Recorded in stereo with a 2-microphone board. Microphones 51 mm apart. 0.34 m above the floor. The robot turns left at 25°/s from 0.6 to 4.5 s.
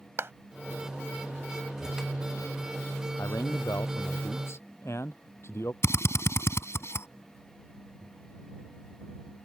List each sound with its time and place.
0.2 s a clap: 55° right (ahead or behind)
3.2 s a man speaking: 95° left; by 5.7 s 60° left
5.8 s a drill: 65° left (ahead or behind)